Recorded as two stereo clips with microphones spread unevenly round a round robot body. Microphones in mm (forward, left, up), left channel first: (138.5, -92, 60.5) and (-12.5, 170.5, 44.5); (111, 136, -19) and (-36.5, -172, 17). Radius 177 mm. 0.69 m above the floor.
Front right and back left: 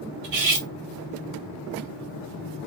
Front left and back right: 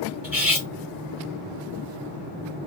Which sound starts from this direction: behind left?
Cutlery clinking, at 0.2 s.